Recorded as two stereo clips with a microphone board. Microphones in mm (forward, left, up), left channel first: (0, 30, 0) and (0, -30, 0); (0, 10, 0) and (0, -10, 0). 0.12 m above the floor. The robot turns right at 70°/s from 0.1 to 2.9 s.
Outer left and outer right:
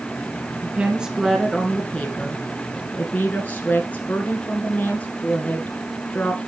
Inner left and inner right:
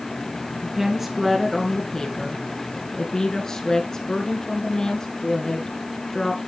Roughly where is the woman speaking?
Right.